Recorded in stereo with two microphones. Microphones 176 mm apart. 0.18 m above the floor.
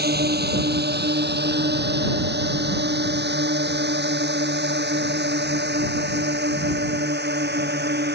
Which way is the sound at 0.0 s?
70° right (ahead or behind).